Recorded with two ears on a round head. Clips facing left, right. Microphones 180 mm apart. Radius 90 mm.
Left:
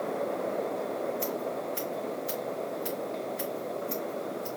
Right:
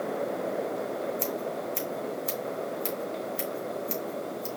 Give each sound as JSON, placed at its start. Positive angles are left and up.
{"t": 1.2, "sound": "scissors", "side_deg": -70, "distance_m": 3.0}